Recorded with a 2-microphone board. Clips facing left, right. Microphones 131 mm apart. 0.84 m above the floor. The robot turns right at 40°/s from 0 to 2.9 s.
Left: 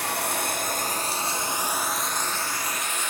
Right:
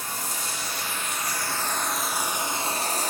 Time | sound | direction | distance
0.0 | running water | 100° left | 1.0 m